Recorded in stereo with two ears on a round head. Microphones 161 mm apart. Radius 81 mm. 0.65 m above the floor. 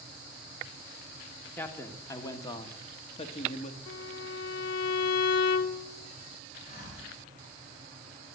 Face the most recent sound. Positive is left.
turn(degrees=45)  # may be behind; listen again after turning